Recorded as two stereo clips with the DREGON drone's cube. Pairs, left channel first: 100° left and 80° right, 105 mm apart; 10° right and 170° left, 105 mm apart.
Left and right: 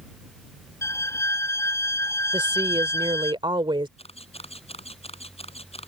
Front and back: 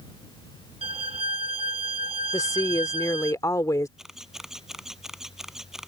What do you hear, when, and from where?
0.8 s a violin: 160° left
2.3 s a woman speaking: 60° right
4.0 s a camera shutter: 85° left